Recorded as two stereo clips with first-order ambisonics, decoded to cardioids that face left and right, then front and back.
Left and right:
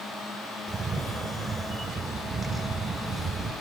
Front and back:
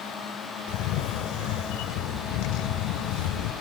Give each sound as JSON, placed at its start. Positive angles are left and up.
{"t": 0.7, "sound": "a camera shutter", "azimuth_deg": -15, "distance_m": 1.0}